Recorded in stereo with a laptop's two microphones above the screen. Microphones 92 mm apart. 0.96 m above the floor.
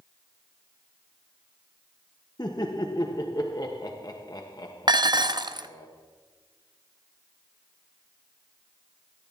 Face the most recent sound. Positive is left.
turn(degrees=-50)  # may be behind; listen again after turning